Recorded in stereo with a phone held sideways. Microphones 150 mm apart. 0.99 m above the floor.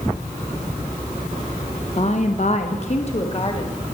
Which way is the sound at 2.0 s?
45° left (ahead or behind).